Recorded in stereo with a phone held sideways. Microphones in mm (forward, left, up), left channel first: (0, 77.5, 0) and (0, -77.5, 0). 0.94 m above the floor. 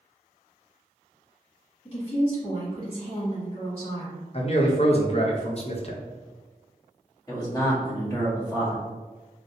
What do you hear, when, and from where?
1.9 s a woman speaking: 35° left (ahead or behind), 1.9 m
4.3 s a man speaking: 40° left (ahead or behind), 0.6 m
7.3 s a man speaking: 25° left (ahead or behind), 1.3 m